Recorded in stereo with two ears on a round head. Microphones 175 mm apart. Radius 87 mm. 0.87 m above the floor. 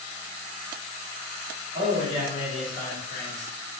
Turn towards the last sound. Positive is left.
turn(degrees=45)  # may be behind; listen again after turning